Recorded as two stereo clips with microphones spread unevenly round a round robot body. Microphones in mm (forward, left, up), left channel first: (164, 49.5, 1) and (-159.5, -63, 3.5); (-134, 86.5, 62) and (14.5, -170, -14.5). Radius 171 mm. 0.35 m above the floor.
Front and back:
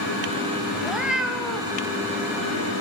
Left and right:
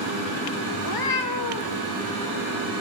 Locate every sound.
0.8 s a cat meowing: 110° left, 1.0 m